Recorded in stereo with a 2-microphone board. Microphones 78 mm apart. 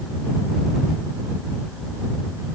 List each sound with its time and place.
Only background noise.